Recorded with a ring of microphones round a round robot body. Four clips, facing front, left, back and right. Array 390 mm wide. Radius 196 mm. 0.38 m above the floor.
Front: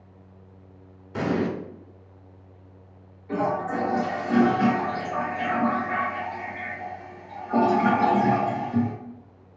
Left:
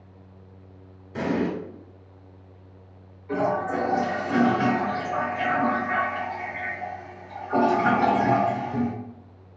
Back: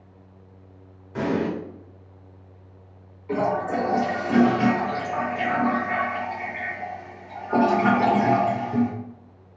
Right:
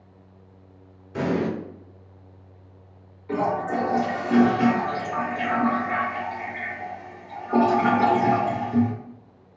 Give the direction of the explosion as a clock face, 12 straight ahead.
12 o'clock.